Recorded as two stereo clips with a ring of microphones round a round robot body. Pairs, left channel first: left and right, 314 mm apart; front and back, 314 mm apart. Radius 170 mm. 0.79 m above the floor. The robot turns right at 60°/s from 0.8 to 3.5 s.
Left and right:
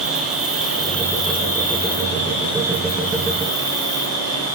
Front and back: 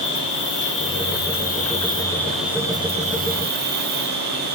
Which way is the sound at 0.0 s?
5° right.